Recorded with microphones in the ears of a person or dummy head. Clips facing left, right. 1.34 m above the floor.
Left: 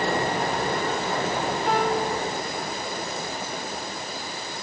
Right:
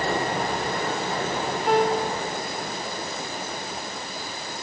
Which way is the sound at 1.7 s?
Centre (ahead or behind).